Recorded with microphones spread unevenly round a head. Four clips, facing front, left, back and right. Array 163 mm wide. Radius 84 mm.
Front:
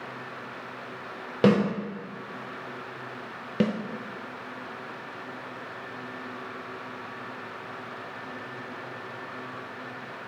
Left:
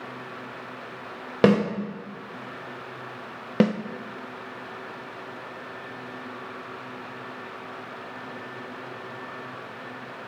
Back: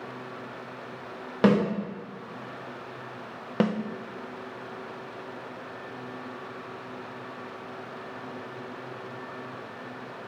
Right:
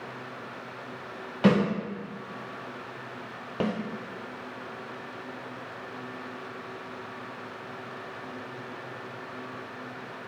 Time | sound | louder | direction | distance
1.4 | a snare drum | left 4 dB, even | 80° left | 3 m
3.6 | a snare drum | left 8 dB, even | 85° left | 0.6 m